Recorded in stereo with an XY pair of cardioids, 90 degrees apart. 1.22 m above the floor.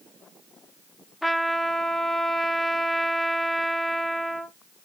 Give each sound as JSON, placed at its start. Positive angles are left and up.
{"t": 1.2, "sound": "a trumpet", "azimuth_deg": 15, "distance_m": 1.3}